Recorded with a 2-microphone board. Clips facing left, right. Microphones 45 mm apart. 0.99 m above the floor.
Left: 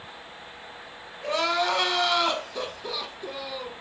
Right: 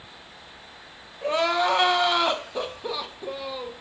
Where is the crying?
25° right (ahead or behind), 0.7 m.